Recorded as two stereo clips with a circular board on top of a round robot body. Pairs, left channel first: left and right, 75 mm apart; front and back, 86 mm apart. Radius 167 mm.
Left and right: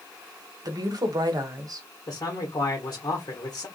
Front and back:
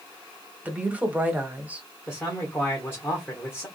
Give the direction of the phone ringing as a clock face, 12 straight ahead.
No phone ringing in this recording.